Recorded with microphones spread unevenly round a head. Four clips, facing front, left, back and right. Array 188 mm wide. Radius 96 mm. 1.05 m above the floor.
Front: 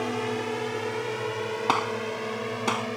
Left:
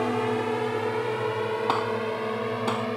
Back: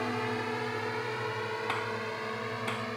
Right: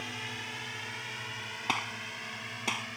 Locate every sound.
0.0 s a drone: 75° left; by 3.0 s 70° left
1.7 s a gunshot: 25° left